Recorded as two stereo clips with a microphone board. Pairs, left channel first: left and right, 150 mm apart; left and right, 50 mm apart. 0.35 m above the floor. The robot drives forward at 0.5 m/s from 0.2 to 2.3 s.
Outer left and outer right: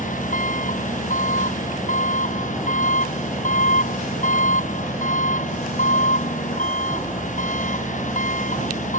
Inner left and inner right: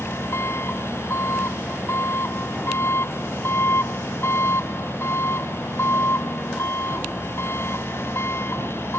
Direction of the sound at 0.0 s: 60° left (ahead or behind).